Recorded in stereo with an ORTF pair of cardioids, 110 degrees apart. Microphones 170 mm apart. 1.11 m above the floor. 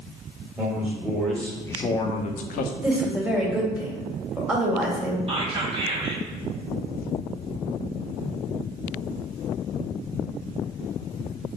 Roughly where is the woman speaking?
Ahead.